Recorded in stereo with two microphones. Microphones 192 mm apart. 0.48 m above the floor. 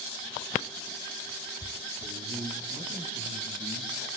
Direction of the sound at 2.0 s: 55° right (ahead or behind).